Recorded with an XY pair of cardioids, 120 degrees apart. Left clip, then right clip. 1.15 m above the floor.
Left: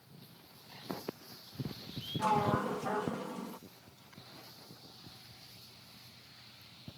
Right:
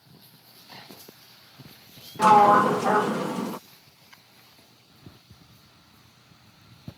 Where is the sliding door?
70° right.